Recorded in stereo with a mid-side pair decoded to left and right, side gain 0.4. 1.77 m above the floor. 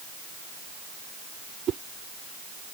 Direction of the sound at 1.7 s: 65° right.